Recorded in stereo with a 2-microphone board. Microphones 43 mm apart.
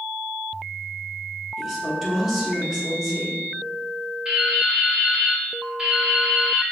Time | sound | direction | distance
1.6 | a woman speaking | 5° right (ahead or behind) | 0.8 m
4.2 | dripping | 20° right (ahead or behind) | 1.2 m